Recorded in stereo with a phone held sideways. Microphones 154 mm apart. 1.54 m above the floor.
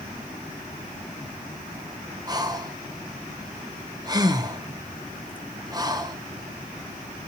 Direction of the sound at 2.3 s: 25° right (ahead or behind).